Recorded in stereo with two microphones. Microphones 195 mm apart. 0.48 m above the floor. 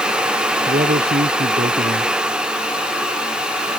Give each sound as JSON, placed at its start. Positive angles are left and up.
{"t": 0.7, "sound": "a man speaking", "side_deg": -50}